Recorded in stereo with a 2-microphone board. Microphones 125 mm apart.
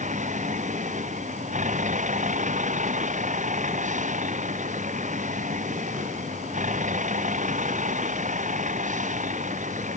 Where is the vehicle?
80° right; by 10.0 s 85° right.